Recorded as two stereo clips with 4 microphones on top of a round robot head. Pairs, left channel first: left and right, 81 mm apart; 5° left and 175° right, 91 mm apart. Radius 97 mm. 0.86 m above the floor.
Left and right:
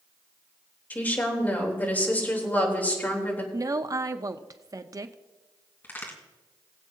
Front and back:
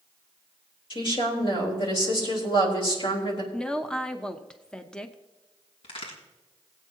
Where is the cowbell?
I don't hear a cowbell.